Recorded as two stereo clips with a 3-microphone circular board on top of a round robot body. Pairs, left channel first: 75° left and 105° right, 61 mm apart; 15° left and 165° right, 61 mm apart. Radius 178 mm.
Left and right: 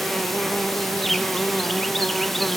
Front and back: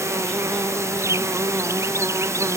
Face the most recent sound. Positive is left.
turn(degrees=165)